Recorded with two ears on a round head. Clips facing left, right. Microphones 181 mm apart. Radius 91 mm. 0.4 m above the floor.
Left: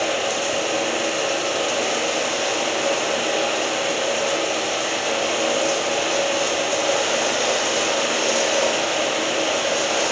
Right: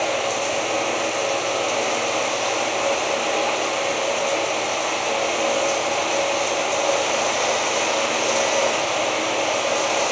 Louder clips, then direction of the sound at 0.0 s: Even; 15° left (ahead or behind).